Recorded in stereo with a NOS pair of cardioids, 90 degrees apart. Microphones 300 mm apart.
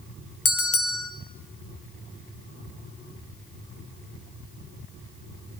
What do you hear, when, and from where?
0.5 s a bell: 50° left, 1.0 m